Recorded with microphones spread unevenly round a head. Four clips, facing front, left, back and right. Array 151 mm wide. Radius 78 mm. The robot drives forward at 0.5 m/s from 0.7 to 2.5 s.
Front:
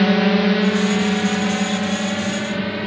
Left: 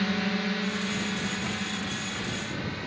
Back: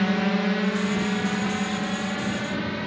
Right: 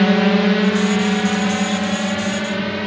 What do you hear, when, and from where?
0.0 s a drone: 55° right; by 2.9 s 60° right